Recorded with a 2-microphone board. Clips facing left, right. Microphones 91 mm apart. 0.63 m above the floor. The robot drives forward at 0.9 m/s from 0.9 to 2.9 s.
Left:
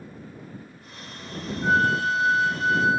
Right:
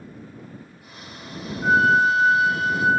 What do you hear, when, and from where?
1.6 s a flute: 30° right (ahead or behind), 0.8 m; by 2.9 s 25° right (ahead or behind), 1.1 m